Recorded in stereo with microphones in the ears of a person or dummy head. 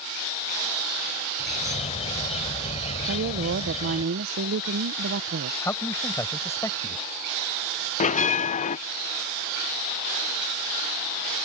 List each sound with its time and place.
1.4 s a bird: 30° left (ahead or behind)
3.0 s a woman speaking: 60° right (ahead or behind)
5.6 s a man speaking: 10° left (ahead or behind)
8.0 s a bell: 35° left (ahead or behind)